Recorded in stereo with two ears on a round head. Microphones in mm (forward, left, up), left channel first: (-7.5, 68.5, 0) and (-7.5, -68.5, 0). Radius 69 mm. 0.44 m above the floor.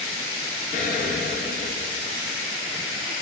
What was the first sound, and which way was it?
An explosion, 65° left (ahead or behind).